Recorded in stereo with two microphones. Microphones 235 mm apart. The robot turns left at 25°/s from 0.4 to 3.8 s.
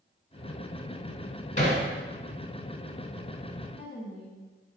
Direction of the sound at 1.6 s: 30° left (ahead or behind).